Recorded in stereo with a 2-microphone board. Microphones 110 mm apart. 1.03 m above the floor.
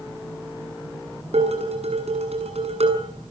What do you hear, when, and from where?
1.3 s dishes clattering: 90° right, 7 m